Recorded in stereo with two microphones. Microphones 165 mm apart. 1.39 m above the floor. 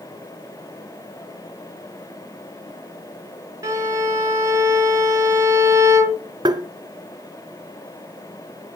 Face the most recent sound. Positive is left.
turn(degrees=-25)  # may be behind; listen again after turning